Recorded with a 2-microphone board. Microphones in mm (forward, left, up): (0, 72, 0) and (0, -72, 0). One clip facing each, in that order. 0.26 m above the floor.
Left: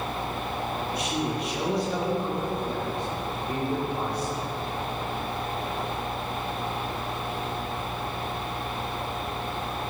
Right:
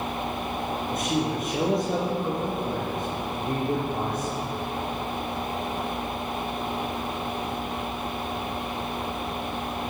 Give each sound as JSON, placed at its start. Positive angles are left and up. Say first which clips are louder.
{"t": 0.9, "sound": "a man speaking", "louder": "right 4 dB", "side_deg": -45, "distance_m": 6.0}